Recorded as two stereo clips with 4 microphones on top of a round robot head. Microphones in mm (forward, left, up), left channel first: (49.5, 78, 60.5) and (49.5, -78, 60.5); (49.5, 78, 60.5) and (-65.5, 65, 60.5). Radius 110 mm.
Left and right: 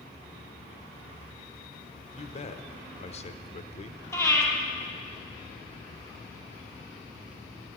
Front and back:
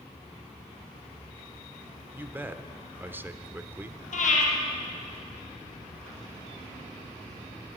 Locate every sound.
2.1 s a man speaking: 120° left, 1.1 m
4.1 s breathing: 15° left, 3.5 m